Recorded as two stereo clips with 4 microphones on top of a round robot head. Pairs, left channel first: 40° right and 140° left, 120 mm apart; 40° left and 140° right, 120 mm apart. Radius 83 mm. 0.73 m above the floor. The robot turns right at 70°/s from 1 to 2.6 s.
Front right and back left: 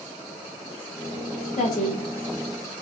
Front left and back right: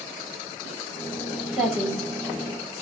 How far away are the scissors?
No scissors in this recording.